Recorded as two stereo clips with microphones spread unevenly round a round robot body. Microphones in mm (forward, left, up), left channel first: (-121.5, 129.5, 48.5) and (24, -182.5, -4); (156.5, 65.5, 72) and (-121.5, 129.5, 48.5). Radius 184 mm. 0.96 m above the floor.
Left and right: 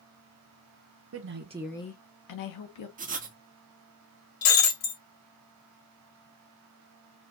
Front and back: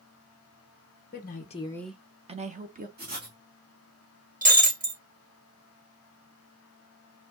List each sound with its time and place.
1.1 s a woman speaking: 65° right, 1.0 m; by 2.9 s 110° left, 1.4 m
3.0 s writing: 130° right, 1.4 m
4.4 s breaking glass: 105° left, 2.5 m